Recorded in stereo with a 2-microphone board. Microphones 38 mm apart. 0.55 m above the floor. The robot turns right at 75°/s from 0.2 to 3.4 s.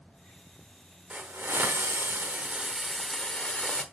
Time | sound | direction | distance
1.1 | a hiss | 140° right | 1.1 m